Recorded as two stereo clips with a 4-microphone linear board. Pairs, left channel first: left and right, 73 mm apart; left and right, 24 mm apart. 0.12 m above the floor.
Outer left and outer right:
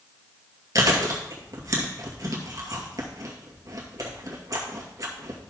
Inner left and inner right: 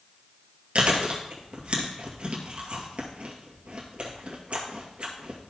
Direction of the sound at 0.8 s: 50° right (ahead or behind).